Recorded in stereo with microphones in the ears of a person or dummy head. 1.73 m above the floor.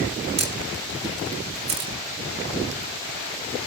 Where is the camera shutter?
25° right (ahead or behind), 1.0 m.